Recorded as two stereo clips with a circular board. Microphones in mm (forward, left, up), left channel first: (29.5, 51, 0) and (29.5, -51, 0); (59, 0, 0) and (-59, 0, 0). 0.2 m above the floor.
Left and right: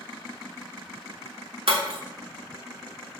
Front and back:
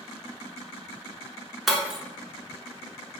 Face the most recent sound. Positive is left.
turn(degrees=-95)